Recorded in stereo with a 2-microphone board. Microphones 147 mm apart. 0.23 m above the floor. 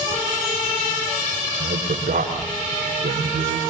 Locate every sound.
1.6 s a man speaking: 75° right (ahead or behind), 8 m